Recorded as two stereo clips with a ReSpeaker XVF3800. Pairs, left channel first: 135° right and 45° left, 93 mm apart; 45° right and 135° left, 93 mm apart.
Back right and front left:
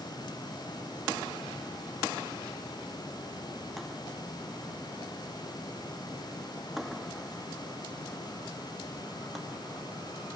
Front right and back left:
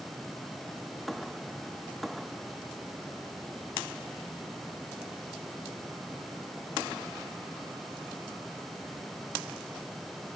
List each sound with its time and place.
Only background noise.